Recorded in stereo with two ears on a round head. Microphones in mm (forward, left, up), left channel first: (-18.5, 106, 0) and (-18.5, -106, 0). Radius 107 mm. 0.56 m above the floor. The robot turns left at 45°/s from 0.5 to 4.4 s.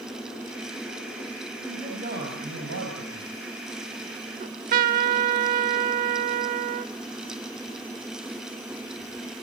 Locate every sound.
1.6 s a man speaking: 15° right, 4.5 m; by 3.3 s 95° right, 4.5 m
4.4 s a trumpet: 35° right (ahead or behind), 1.0 m